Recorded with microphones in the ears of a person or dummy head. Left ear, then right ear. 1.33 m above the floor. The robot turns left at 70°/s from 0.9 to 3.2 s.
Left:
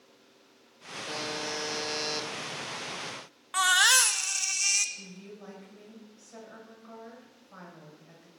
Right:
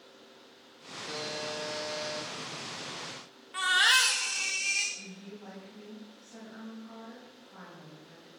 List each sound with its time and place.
1.1 s a buzzer: 160° left, 2 m; by 2.3 s 75° left, 2 m
3.5 s a baby crying: 40° left (ahead or behind), 1.0 m
5.0 s a woman speaking: 45° left (ahead or behind), 6 m